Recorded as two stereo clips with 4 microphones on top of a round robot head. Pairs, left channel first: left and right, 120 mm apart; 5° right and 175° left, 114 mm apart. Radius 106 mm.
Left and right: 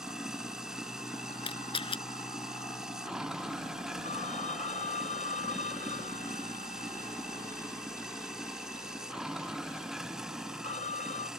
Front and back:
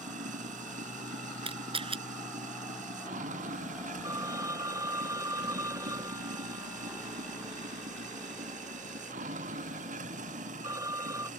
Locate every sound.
0.0 s running water: 175° right
1.4 s a camera shutter: 135° left
4.0 s a phone ringing: 110° left